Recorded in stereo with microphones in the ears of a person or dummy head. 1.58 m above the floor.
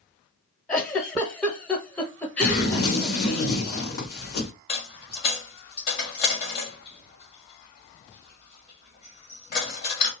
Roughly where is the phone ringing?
I don't hear a phone ringing.